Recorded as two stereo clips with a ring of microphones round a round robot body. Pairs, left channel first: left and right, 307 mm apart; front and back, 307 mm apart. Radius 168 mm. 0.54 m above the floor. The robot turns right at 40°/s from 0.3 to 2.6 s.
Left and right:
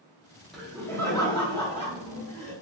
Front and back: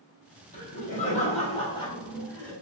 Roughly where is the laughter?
Ahead.